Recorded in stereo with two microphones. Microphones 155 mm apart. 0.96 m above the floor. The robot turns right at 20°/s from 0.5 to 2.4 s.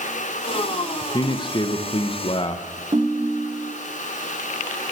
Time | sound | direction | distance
1.0 | a man speaking | 25° left (ahead or behind) | 0.7 m
2.9 | a ringtone | 30° right (ahead or behind) | 0.6 m